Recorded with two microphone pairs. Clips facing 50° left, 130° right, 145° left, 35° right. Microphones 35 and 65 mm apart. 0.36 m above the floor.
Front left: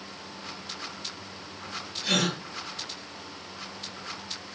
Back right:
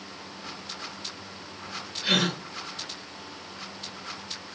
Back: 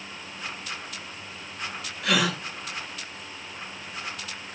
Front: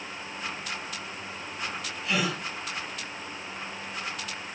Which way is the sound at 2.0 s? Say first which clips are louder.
Back right 2 dB, back 4 dB; 165° left.